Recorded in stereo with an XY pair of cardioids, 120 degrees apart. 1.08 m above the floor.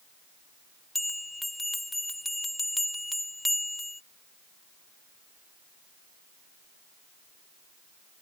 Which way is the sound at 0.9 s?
10° left.